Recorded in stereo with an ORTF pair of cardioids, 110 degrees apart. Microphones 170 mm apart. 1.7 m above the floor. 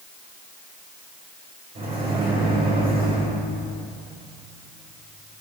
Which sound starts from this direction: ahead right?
A microwave, at 1.8 s.